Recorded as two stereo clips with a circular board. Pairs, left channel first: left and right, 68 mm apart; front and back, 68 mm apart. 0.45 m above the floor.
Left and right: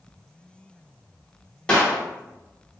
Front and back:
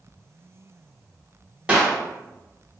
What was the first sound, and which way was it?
A clap, 140° left.